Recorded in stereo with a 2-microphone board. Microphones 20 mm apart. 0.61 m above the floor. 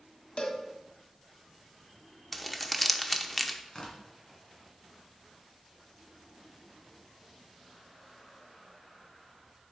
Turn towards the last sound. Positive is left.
turn(degrees=40)  # may be behind; listen again after turning